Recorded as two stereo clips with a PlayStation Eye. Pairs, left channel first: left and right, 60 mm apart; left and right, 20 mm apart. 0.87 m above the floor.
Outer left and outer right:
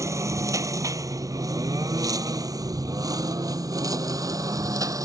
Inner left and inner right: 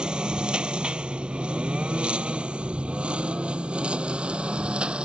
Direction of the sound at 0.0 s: 55° right (ahead or behind).